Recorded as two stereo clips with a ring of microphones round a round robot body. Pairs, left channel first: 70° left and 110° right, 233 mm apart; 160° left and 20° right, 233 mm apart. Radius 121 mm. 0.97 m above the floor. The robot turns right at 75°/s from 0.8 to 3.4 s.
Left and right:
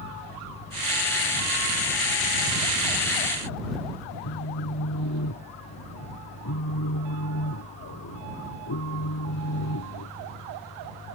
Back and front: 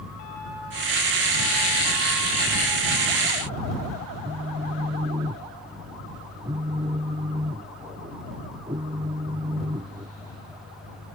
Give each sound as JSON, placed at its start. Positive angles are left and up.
{"t": 4.2, "sound": "a phone buzzing", "azimuth_deg": 45}